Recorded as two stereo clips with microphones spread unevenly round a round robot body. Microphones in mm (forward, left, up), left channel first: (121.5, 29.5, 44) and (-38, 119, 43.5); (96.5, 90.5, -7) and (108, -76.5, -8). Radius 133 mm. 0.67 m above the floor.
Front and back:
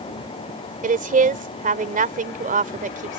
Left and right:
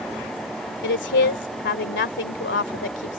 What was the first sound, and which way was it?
A woman speaking, 110° left.